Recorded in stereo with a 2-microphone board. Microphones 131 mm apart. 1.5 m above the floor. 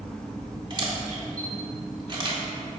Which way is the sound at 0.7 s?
35° right (ahead or behind).